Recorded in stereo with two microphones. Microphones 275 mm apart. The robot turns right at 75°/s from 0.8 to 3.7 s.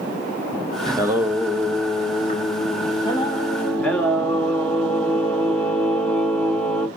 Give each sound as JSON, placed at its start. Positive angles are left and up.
{"t": 0.9, "sound": "singing", "side_deg": -15, "distance_m": 1.5}